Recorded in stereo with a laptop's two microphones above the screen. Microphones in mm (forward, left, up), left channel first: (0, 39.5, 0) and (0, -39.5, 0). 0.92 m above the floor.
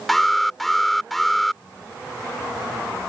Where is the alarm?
Centre (ahead or behind).